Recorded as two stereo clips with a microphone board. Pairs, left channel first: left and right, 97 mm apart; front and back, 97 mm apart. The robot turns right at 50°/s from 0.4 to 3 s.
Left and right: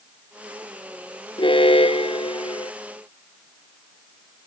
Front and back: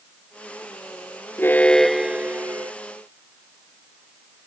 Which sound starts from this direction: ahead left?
An alarm, at 1.4 s.